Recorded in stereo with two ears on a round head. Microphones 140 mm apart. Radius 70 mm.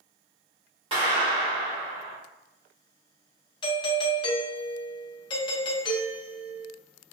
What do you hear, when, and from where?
0.9 s a clap: 30° right (ahead or behind), 1.5 m
3.6 s a doorbell: 30° left (ahead or behind), 0.8 m